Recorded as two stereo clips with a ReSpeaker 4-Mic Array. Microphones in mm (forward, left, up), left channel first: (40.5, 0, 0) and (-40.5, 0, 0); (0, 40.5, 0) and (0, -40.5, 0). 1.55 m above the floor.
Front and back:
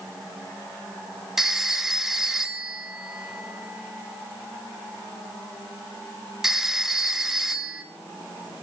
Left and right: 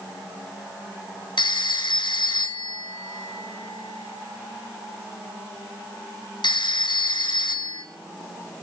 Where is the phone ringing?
95° left, 1.6 m.